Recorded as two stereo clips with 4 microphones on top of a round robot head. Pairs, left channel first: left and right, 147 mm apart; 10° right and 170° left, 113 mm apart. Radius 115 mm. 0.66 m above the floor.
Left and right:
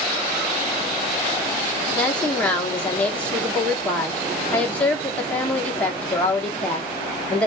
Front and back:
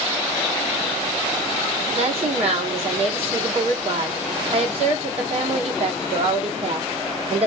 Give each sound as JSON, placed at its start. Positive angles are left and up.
{"t": 1.9, "sound": "a woman speaking", "azimuth_deg": 170, "distance_m": 1.9}